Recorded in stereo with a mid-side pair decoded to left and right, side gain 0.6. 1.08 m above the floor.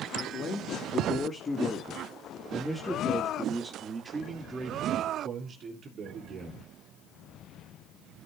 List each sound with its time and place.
0.1 s a man speaking: 55° left, 2.5 m; by 6.7 s 50° right, 3.5 m